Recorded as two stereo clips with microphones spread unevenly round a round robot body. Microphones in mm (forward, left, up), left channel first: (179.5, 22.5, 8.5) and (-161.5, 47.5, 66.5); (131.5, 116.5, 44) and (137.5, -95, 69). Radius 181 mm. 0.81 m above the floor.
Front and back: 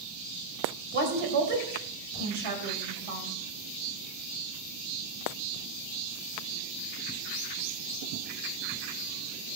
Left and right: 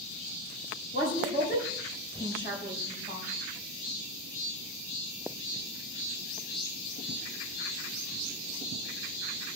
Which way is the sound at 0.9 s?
160° right.